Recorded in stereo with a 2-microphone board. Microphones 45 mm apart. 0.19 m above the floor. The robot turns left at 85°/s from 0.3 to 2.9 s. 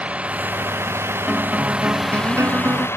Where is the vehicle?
30° right; by 3.0 s 105° left.